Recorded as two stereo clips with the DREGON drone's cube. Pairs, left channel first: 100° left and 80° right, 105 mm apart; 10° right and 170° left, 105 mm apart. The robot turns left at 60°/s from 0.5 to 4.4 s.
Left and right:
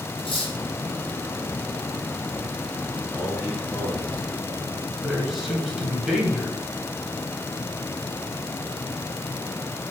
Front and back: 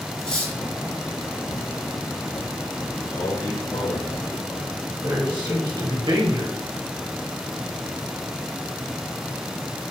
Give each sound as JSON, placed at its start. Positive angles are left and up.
{"t": 0.2, "sound": "cutlery clinking", "azimuth_deg": 70, "distance_m": 2.0}
{"t": 3.1, "sound": "a man speaking", "azimuth_deg": 35, "distance_m": 2.0}
{"t": 5.0, "sound": "a man speaking", "azimuth_deg": -165, "distance_m": 2.0}